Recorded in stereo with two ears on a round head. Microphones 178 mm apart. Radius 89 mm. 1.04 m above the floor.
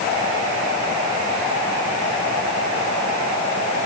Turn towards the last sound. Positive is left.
No sound to turn to.